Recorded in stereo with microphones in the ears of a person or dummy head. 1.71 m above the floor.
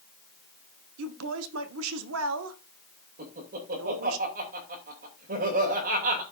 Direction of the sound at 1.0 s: 75° right (ahead or behind).